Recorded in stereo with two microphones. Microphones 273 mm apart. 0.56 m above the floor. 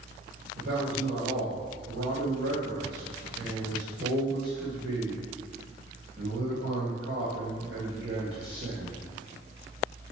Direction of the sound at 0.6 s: 55° right (ahead or behind).